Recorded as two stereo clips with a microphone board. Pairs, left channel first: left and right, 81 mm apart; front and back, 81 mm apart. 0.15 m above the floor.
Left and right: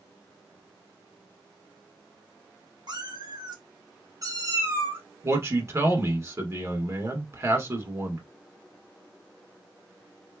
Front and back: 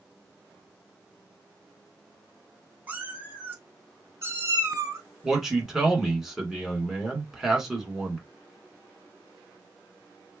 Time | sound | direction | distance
2.9 | a cat meowing | 115° right | 1.8 m
5.2 | a man speaking | 100° right | 1.7 m